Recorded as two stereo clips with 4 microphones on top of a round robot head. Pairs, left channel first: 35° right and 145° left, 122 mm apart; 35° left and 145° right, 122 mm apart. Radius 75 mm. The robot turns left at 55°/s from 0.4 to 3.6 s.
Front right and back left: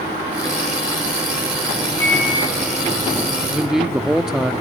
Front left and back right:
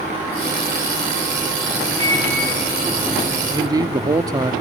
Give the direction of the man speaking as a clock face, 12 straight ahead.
4 o'clock.